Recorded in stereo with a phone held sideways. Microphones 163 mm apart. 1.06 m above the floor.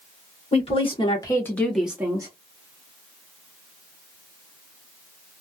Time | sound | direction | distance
0.5 | a woman speaking | 40° left (ahead or behind) | 1.3 m